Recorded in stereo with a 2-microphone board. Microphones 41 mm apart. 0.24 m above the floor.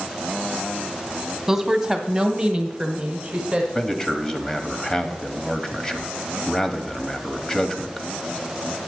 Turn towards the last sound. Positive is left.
turn(degrees=15)  # may be behind; listen again after turning